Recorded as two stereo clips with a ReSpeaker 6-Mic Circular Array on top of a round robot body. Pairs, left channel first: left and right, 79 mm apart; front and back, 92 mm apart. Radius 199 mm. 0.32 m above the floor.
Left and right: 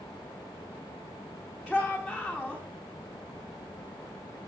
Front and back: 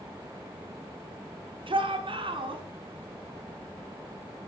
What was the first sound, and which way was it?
A shout, straight behind.